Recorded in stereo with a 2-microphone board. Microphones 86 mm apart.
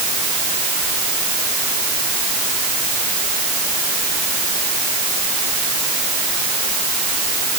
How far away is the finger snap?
No finger snap in this recording.